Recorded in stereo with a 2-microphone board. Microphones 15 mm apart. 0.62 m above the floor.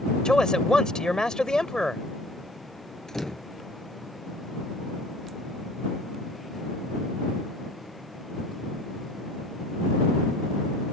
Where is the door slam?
40° left (ahead or behind).